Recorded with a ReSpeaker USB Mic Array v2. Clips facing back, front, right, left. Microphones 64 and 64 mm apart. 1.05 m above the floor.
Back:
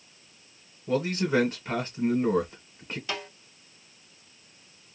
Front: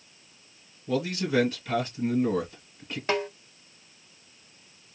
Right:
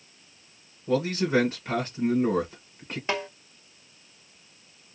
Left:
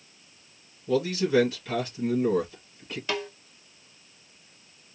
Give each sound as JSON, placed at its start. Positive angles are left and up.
{"t": 0.9, "sound": "a man speaking", "azimuth_deg": -140, "distance_m": 1.3}
{"t": 3.1, "sound": "a snare drum", "azimuth_deg": -35, "distance_m": 1.0}